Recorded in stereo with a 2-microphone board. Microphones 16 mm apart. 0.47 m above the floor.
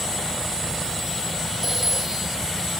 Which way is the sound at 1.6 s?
15° right (ahead or behind).